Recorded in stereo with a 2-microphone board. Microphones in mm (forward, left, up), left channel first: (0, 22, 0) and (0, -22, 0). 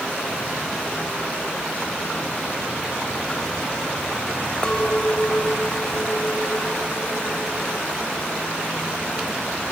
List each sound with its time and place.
4.6 s a clink: 25° left (ahead or behind)